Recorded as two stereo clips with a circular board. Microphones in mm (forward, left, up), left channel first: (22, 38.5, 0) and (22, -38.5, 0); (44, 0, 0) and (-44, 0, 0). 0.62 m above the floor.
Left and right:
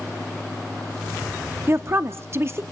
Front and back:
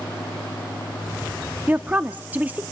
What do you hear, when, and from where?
1.7 s a woman speaking: 120° right, 0.7 m